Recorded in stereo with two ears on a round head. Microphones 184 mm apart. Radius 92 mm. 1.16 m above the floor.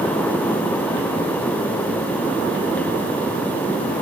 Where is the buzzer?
No buzzer in this recording.